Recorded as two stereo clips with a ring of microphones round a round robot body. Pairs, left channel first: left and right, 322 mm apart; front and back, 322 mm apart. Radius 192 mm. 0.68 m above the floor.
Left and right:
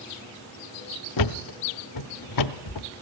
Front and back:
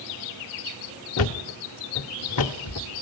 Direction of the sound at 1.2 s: 50° left.